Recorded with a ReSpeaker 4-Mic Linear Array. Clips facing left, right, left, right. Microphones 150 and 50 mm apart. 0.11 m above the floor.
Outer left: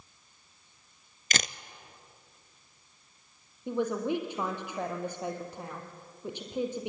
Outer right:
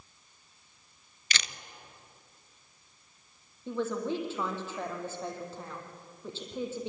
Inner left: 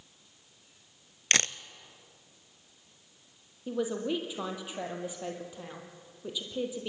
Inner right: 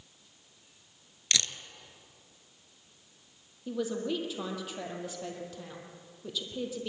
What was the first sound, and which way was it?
A camera shutter, 45° left (ahead or behind).